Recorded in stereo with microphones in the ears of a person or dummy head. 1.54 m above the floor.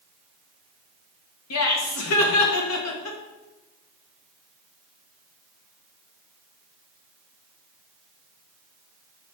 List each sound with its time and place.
1.5 s laughter: 85° left, 1.6 m